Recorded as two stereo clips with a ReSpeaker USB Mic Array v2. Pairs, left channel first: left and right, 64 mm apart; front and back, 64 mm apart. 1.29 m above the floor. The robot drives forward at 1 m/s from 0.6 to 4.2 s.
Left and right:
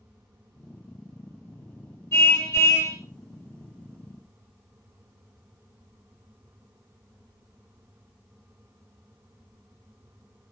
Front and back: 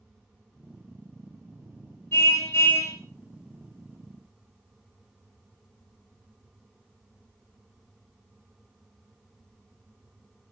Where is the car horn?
50° left, 6.5 m; by 3.0 s 55° left, 6 m.